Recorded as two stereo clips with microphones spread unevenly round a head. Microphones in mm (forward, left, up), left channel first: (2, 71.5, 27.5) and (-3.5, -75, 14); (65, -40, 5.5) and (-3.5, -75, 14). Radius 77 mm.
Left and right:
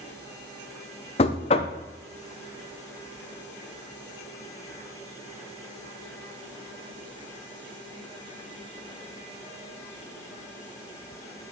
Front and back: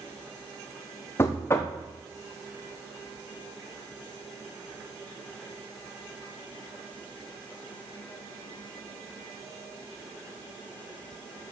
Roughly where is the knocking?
Left.